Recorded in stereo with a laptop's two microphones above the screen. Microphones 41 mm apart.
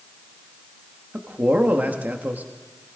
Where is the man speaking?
45° right (ahead or behind), 1.4 m.